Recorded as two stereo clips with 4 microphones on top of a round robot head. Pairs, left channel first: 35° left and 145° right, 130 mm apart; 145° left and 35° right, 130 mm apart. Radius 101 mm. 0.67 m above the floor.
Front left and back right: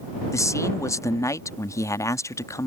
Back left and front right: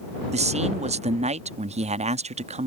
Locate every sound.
0.3 s a man speaking: 25° right